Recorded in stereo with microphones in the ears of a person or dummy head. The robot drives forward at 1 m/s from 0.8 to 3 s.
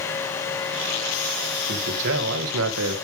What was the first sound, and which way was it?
A man speaking, 60° right (ahead or behind).